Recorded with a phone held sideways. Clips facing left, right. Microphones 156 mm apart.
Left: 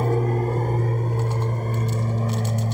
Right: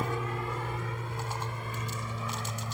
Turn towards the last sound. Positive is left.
turn(degrees=40)  # may be behind; listen again after turning